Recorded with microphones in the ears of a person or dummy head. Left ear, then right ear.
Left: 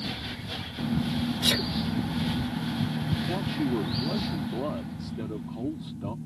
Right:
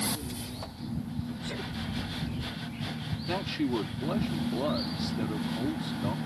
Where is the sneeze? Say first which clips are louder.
Left 14 dB; 85° left.